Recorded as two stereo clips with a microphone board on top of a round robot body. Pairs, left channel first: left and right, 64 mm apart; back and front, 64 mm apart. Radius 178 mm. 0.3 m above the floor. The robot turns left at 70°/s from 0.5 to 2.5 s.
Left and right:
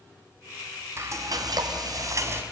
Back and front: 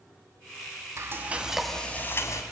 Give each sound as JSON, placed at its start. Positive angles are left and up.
{"t": 1.0, "sound": "frying", "azimuth_deg": -45, "distance_m": 1.5}